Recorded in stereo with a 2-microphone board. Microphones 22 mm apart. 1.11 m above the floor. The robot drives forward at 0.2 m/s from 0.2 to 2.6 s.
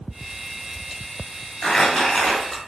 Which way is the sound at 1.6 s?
15° left (ahead or behind).